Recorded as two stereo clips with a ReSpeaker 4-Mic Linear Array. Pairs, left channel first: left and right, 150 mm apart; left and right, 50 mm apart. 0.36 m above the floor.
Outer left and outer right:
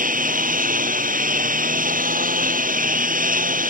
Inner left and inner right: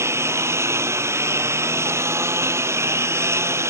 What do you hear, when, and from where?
0.0 s a lawn mower: 65° right (ahead or behind)